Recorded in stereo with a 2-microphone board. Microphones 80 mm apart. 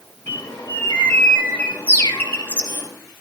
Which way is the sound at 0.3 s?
25° left (ahead or behind).